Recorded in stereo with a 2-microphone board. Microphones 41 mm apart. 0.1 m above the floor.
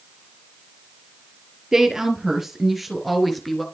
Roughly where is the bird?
I don't hear a bird.